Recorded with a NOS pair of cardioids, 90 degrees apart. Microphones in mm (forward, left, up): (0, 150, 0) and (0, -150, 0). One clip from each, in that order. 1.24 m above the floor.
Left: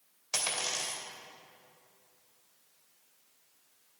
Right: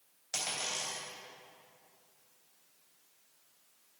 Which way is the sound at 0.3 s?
45° left.